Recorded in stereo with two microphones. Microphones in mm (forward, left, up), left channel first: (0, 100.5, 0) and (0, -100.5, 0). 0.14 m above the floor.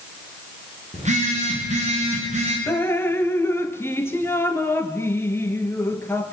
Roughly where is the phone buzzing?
Right.